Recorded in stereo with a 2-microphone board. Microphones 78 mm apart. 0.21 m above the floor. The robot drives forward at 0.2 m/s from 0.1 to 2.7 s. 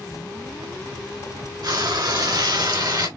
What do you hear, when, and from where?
1.6 s frying: 65° right (ahead or behind), 2 m